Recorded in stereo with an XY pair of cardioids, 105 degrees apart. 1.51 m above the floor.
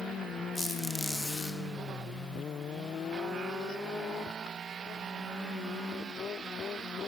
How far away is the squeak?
About 2.5 m.